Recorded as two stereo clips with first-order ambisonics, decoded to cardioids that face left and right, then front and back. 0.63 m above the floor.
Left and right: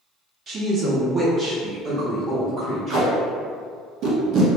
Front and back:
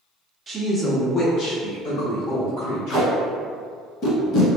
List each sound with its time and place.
0.5 s a woman speaking: 120° right, 0.7 m; by 3.1 s straight ahead, 2 m
2.9 s tape being pulled: 40° right, 1.2 m